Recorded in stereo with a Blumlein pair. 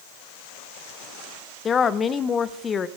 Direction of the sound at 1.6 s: 20° left.